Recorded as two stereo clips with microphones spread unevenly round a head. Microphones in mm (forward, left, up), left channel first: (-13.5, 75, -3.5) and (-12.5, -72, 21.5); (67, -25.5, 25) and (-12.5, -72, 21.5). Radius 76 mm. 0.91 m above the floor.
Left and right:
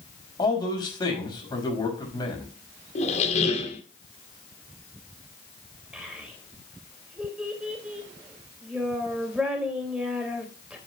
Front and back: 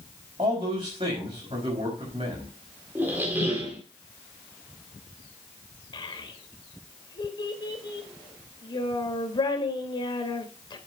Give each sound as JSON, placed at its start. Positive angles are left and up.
{"t": 0.4, "sound": "a man speaking", "azimuth_deg": 155, "distance_m": 6.0}
{"t": 3.0, "sound": "a squeak", "azimuth_deg": 135, "distance_m": 2.0}
{"t": 5.9, "sound": "a child speaking", "azimuth_deg": -5, "distance_m": 3.0}